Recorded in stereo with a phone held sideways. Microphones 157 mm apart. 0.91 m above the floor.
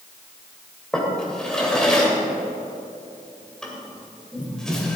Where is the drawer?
5° left (ahead or behind), 2 m.